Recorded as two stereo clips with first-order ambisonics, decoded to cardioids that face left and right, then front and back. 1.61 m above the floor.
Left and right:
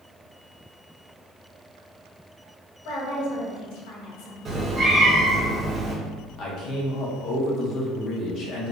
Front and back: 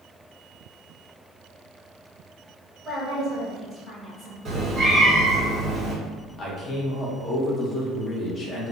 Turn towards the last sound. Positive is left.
turn(degrees=55)